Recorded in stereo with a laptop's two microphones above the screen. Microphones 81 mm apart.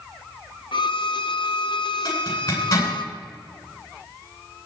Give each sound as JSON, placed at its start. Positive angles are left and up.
{"t": 0.7, "sound": "a violin", "side_deg": 75, "distance_m": 0.8}
{"t": 2.0, "sound": "a zipper", "side_deg": 40, "distance_m": 10.0}